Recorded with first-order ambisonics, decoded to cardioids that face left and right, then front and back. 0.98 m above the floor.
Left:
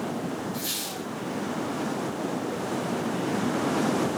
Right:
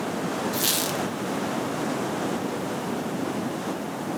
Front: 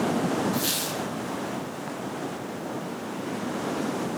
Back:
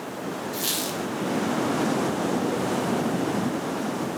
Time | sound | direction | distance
0.5 | a squeak | 100° right | 0.7 m